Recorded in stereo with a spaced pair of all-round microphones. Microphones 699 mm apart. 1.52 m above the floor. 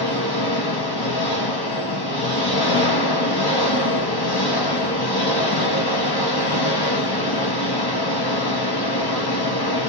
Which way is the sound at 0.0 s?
35° left (ahead or behind).